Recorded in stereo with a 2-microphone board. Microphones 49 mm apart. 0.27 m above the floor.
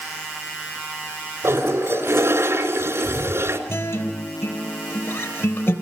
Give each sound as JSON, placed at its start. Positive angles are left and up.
{"t": 1.4, "sound": "a toilet flushing", "side_deg": -60, "distance_m": 3.0}
{"t": 3.7, "sound": "a guitar", "side_deg": 60, "distance_m": 3.5}